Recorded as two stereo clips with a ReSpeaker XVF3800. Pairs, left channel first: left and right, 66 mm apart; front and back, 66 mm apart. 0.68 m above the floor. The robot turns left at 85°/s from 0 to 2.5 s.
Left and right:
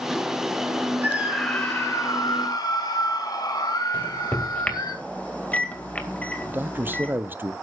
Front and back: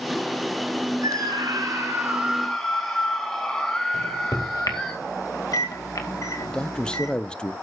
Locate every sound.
1.0 s a scream: 155° right, 4.5 m; by 4.9 s 80° left, 4.5 m
3.9 s a microwave: 20° left, 2 m
6.5 s a man speaking: 65° right, 0.6 m